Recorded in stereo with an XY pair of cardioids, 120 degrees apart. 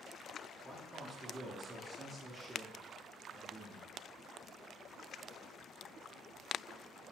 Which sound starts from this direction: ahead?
A man speaking, at 0.6 s.